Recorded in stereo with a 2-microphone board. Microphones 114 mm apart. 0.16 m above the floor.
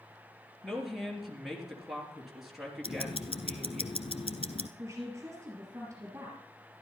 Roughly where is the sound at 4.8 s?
Right.